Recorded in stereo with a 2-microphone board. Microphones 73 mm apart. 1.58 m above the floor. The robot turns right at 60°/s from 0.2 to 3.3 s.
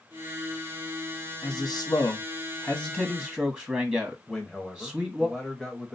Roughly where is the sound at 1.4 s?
Ahead left.